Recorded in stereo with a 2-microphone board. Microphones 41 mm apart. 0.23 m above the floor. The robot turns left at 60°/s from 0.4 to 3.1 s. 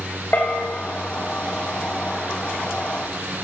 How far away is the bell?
About 4 m.